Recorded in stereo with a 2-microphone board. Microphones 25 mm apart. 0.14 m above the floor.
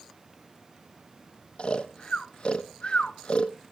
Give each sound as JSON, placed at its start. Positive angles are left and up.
{"t": 1.6, "sound": "snoring", "side_deg": 55, "distance_m": 0.9}